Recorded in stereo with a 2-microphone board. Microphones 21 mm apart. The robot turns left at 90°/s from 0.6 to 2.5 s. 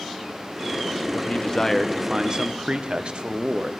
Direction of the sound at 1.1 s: 65° left.